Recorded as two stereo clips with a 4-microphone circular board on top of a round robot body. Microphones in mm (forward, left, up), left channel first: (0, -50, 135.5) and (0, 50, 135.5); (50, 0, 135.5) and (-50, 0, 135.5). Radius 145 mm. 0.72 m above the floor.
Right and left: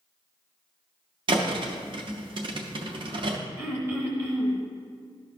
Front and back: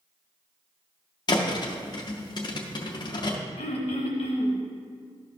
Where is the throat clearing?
20° left, 1.0 m.